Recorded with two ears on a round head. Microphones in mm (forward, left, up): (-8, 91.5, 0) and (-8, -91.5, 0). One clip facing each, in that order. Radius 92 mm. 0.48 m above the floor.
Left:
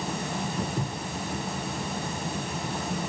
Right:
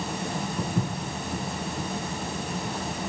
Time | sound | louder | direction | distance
0.6 | footsteps | right 2 dB | 80° right | 8.5 m